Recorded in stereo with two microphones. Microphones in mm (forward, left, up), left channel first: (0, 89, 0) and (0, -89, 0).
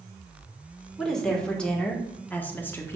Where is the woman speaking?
Centre (ahead or behind), 1.7 m; by 3.0 s 15° left (ahead or behind), 1.0 m.